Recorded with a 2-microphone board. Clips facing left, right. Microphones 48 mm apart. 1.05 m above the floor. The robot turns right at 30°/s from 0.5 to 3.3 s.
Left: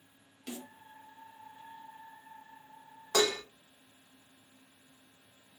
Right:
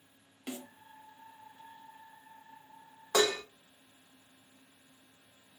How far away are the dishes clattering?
About 0.6 m.